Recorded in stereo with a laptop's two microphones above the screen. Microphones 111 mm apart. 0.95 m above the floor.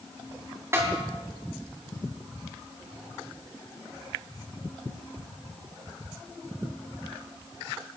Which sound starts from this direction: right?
A snare drum, at 0.7 s.